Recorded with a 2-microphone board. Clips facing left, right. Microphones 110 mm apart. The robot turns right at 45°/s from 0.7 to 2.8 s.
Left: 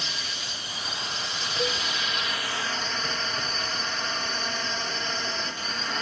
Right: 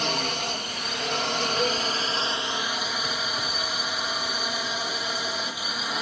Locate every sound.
0.0 s a drone: 105° right; by 6.0 s 10° right
1.6 s a cowbell: 5° right (ahead or behind); by 1.9 s 20° right (ahead or behind)